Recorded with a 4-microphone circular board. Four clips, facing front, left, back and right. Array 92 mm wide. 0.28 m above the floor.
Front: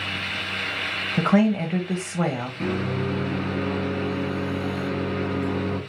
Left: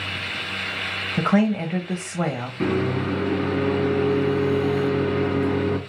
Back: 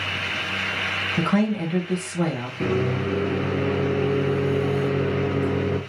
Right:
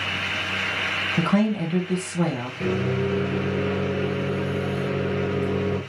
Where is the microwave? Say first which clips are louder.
Left 2 dB, back 4 dB; 100° left, 2.5 m.